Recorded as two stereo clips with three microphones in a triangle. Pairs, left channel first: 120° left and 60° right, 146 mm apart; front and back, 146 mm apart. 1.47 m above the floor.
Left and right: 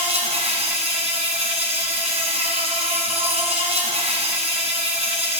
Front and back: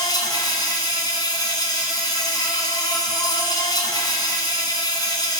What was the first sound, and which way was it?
An insect, 50° right.